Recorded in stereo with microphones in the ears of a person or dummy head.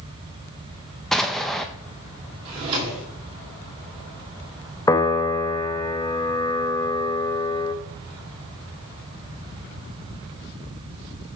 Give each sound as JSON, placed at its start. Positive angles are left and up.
{"t": 1.1, "sound": "an explosion", "side_deg": 0, "distance_m": 0.5}
{"t": 2.5, "sound": "a drawer", "side_deg": -30, "distance_m": 2.5}
{"t": 4.9, "sound": "a piano", "side_deg": 20, "distance_m": 0.6}